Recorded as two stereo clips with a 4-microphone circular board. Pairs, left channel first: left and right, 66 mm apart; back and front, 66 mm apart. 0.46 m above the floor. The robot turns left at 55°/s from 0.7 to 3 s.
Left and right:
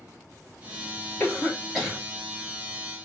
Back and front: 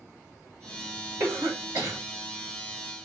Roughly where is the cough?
Ahead left.